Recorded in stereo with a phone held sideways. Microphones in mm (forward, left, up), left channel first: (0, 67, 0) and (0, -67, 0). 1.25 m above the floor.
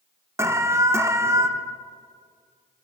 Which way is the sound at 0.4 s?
20° right (ahead or behind).